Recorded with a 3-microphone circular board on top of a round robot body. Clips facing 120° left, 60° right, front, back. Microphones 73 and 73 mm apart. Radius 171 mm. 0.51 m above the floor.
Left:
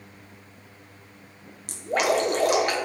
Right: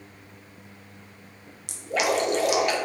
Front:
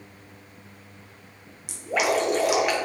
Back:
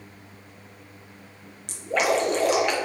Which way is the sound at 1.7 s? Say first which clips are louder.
Left 2 dB, back 1 dB; 80° left.